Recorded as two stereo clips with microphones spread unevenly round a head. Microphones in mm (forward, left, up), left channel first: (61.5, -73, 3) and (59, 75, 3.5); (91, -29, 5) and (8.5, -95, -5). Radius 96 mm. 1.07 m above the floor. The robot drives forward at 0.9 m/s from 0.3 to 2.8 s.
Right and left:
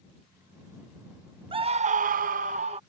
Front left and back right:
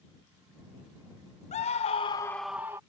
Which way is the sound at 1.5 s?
35° left.